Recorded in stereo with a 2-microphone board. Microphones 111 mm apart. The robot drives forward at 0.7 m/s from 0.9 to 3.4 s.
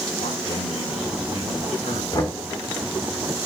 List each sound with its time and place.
0.2 s a man speaking: 85° left, 8.5 m; by 2.0 s 90° left, 8 m
2.1 s knocking: 40° left (ahead or behind), 2.5 m